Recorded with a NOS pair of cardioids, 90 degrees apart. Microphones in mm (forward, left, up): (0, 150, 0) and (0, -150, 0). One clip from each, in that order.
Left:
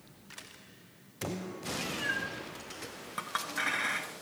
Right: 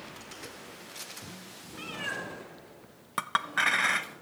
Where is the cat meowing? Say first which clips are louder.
Left 2 dB; 35° right, 2 m; by 4.1 s 10° right, 3.5 m.